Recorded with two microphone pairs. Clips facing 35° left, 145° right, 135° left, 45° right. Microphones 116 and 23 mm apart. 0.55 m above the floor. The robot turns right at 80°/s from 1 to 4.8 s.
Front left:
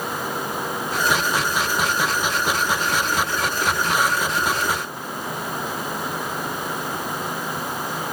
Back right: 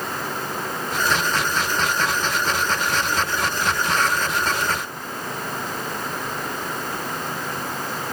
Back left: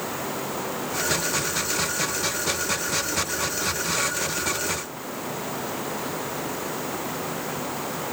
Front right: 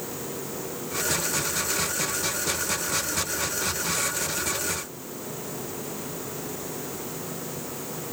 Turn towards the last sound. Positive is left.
No sound to turn to.